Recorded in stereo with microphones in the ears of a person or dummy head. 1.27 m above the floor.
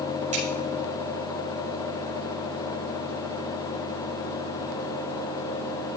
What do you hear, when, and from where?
0.3 s scissors: 35° right (ahead or behind), 6 m